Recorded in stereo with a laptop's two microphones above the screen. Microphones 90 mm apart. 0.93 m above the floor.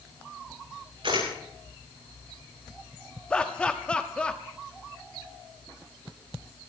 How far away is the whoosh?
No whoosh in this recording.